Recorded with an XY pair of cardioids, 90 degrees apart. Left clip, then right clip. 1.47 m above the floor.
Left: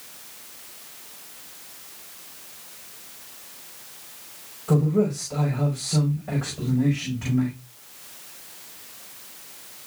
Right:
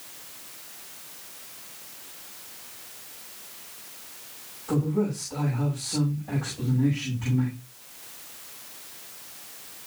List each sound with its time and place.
4.7 s a man speaking: 65° left, 6 m